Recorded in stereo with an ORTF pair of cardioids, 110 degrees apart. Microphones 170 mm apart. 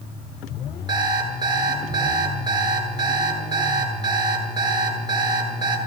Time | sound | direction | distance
0.9 | an alarm clock | 25° right | 9 m